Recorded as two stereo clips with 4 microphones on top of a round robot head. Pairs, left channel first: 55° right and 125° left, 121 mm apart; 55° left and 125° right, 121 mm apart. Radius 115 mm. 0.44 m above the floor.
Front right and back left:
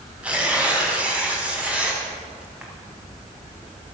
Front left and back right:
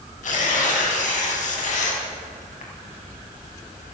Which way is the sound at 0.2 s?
45° left.